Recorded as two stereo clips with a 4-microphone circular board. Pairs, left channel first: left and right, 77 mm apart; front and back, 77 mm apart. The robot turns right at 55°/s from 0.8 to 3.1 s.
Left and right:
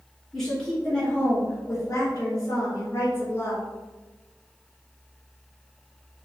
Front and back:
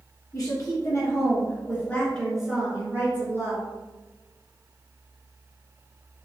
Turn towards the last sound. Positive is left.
turn(degrees=130)